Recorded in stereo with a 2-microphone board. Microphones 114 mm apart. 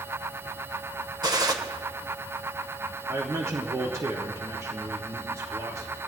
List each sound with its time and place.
1.2 s a gunshot: 40° right (ahead or behind), 1.1 m
3.1 s a man speaking: 30° right (ahead or behind), 1.1 m